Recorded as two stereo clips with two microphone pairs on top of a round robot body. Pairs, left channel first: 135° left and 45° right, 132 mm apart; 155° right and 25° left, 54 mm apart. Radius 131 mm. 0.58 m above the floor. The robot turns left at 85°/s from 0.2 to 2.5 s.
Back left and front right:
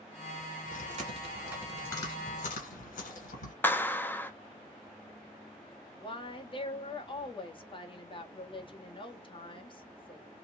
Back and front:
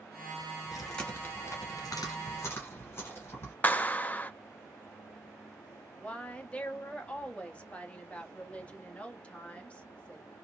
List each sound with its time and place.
0.7 s chewing: 55° right, 1.9 m; by 3.5 s 155° left, 1.9 m
3.6 s a clap: 160° right, 0.8 m
6.0 s a woman speaking: 160° left, 1.4 m